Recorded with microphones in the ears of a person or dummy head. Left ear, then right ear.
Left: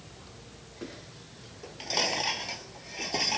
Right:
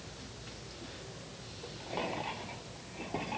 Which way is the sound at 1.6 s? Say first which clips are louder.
Left 9 dB; 75° left (ahead or behind).